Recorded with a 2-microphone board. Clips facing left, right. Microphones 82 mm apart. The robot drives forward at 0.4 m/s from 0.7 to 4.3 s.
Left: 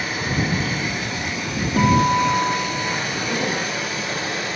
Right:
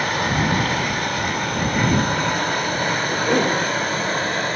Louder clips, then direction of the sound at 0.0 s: Right 3 dB; 60° right (ahead or behind).